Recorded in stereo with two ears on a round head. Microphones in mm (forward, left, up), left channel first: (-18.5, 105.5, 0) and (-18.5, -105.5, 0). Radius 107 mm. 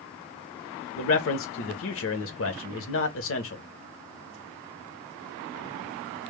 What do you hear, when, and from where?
1.0 s a man speaking: 55° left (ahead or behind), 0.7 m